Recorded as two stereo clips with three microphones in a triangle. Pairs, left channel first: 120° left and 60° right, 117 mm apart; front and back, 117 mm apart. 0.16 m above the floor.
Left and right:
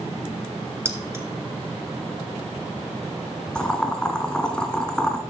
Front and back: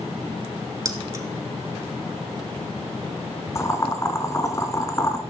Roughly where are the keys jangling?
Behind right.